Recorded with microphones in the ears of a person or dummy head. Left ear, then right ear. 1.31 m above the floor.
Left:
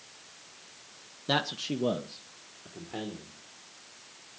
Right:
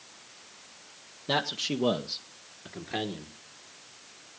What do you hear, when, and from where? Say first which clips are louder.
1.3 s a man speaking: right 1 dB; 10° left (ahead or behind), 0.9 m; by 3.3 s 80° right, 1.8 m